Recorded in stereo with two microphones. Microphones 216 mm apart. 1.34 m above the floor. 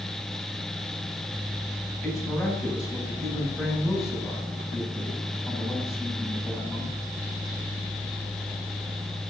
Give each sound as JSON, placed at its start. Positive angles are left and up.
{"t": 2.0, "sound": "a woman speaking", "side_deg": 0, "distance_m": 9.0}